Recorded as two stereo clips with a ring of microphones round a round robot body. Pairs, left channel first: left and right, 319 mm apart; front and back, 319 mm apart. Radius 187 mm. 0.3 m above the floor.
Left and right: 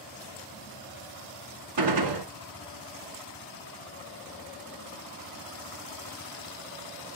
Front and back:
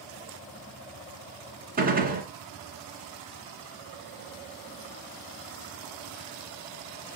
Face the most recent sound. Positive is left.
turn(degrees=-115)